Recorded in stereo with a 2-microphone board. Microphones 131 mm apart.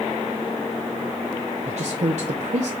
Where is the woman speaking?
55° right (ahead or behind), 0.7 m.